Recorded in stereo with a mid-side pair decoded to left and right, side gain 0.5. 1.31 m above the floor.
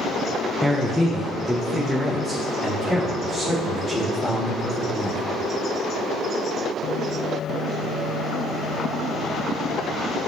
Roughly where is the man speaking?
Ahead.